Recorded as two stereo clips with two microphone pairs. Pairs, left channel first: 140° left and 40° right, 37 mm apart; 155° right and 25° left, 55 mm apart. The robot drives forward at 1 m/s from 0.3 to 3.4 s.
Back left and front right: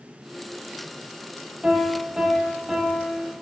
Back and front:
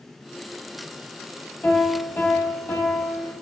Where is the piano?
105° right, 3 m; by 3.3 s 130° right, 4 m.